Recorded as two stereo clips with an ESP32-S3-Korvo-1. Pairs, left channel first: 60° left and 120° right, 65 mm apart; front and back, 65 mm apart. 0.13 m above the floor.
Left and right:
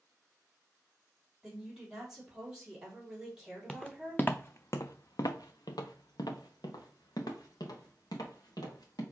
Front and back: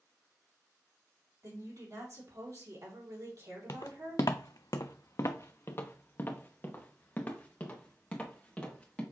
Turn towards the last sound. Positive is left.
turn(degrees=75)